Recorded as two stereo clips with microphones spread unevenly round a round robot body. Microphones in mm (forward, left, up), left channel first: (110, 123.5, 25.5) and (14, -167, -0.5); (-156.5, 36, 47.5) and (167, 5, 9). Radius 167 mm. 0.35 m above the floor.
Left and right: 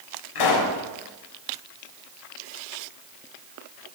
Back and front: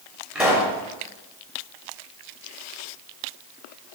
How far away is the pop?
About 6 m.